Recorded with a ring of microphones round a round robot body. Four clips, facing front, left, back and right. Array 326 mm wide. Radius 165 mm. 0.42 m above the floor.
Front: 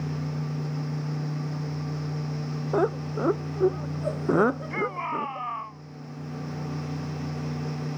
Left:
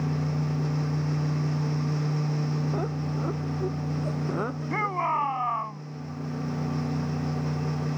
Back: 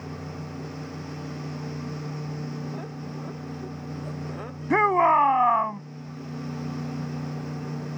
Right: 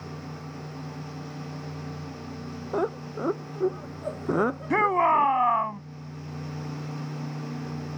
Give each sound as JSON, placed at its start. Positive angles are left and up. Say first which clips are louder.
{"t": 2.7, "sound": "laughter", "louder": "right 2 dB, front 11 dB", "azimuth_deg": -20}
{"t": 4.7, "sound": "a shout", "louder": "right 6 dB, back 10 dB", "azimuth_deg": -155}